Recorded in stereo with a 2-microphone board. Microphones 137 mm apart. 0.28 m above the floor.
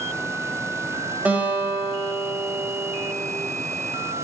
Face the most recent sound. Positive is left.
turn(degrees=-10)  # may be behind; listen again after turning